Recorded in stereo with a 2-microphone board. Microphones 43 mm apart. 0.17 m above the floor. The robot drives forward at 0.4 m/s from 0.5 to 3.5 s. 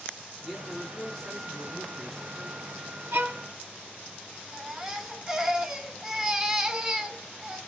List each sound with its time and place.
0.4 s a man speaking: 10° left (ahead or behind), 2 m; by 2.9 s 15° left (ahead or behind), 1.6 m
3.1 s a violin: 65° right (ahead or behind), 1.0 m; by 3.4 s 70° right (ahead or behind), 1.0 m
4.5 s a baby crying: 15° right (ahead or behind), 1.0 m